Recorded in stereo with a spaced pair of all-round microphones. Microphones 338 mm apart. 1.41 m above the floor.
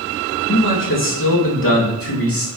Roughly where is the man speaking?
Left.